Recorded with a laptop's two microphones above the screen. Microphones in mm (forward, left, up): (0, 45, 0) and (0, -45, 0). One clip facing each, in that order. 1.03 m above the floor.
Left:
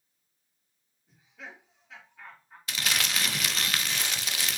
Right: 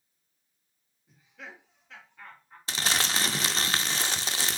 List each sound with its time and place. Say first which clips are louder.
1.1 s laughter: even; centre (ahead or behind), 2 m
2.7 s crumpling: right 2 dB; 30° right (ahead or behind), 0.7 m